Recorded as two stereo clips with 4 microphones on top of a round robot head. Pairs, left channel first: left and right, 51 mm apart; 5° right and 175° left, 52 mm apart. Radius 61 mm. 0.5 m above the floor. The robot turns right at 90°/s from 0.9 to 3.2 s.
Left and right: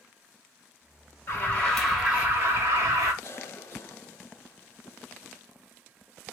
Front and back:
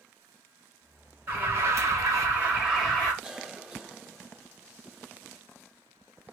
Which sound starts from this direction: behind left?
An alarm, at 1.3 s.